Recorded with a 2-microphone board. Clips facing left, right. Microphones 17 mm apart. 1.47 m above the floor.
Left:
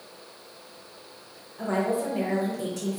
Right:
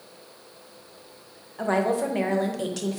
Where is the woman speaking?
50° right (ahead or behind), 0.7 m.